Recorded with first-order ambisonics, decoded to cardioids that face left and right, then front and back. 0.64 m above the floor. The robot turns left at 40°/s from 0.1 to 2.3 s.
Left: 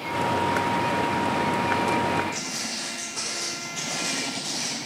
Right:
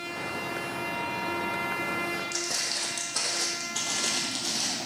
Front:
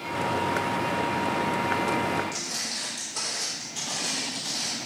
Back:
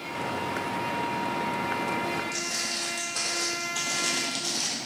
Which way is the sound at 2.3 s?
95° right.